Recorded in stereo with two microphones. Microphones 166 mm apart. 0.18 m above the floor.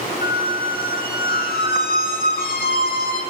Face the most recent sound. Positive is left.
turn(degrees=65)  # may be behind; listen again after turning